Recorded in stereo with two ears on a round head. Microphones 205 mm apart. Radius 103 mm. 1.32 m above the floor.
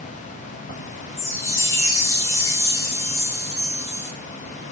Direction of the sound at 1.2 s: 15° left (ahead or behind).